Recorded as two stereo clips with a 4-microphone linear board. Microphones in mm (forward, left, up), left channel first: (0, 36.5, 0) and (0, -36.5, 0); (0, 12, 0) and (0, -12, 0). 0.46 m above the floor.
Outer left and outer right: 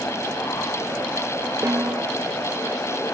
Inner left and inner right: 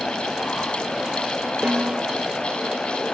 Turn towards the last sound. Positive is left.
turn(degrees=-45)  # may be behind; listen again after turning